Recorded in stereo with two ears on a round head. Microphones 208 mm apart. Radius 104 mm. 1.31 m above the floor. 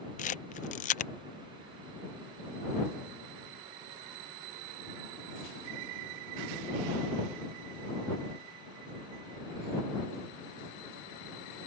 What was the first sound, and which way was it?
A camera shutter, 35° left (ahead or behind).